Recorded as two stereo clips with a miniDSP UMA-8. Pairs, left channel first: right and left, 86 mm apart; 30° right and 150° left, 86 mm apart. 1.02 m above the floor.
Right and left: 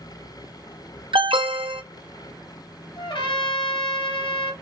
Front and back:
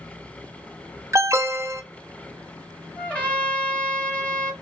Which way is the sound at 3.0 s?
105° right.